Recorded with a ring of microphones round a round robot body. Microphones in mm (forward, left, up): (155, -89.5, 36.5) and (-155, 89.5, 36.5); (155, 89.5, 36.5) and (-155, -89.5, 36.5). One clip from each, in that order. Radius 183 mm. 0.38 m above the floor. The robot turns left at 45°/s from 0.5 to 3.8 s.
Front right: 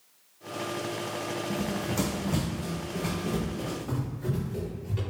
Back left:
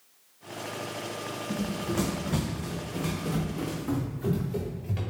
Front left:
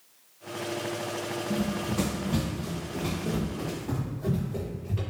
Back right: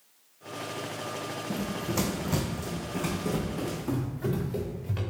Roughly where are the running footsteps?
Right.